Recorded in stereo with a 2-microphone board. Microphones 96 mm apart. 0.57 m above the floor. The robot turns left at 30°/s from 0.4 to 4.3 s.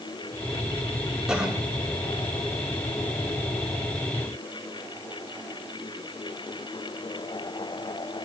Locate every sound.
1.3 s a cough: 10° right (ahead or behind), 7 m; by 1.6 s 20° right (ahead or behind), 7 m